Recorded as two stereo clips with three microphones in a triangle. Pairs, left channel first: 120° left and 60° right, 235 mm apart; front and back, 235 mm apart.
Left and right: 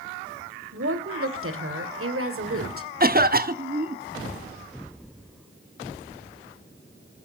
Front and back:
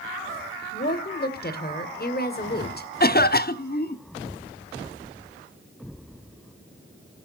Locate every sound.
0.7 s a woman speaking: 45° right, 2 m
3.0 s a cough: 30° right, 0.9 m